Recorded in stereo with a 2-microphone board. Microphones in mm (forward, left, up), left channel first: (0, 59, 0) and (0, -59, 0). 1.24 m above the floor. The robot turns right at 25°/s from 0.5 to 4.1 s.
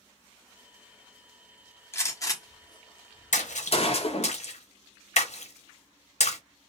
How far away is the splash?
About 0.7 m.